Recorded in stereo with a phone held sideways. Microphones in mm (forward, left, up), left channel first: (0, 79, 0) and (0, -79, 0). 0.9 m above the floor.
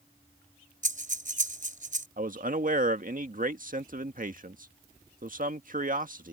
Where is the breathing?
55° right (ahead or behind).